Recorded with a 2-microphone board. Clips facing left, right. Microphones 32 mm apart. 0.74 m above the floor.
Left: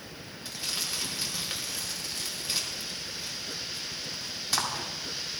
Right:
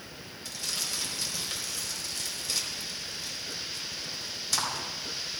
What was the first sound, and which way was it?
Crumpling, 25° left (ahead or behind).